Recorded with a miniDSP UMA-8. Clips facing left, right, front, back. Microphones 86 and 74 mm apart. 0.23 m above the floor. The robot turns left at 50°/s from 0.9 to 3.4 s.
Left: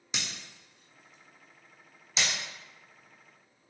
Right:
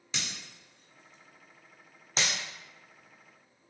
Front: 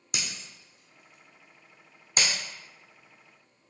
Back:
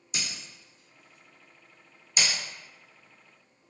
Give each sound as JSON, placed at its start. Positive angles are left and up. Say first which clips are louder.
{"t": 0.1, "sound": "breaking glass", "louder": "even, even", "azimuth_deg": 20, "distance_m": 1.0}